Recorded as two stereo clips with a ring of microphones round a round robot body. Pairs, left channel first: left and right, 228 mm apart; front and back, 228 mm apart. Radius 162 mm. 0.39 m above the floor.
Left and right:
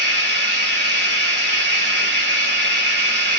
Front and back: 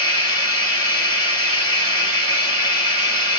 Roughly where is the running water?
Right.